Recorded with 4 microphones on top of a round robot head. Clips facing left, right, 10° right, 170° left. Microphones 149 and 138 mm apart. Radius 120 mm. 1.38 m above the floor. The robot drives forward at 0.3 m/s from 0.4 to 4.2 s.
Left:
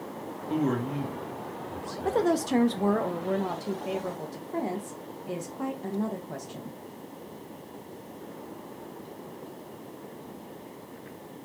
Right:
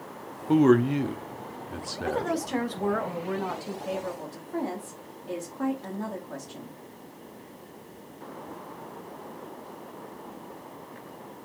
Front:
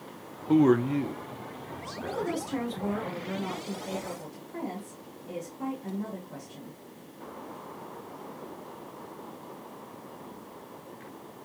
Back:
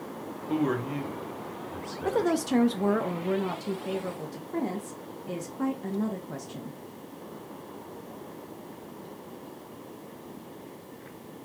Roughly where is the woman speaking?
Behind left.